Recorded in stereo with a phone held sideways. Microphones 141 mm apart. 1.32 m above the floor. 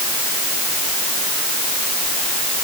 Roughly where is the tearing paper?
No tearing paper in this recording.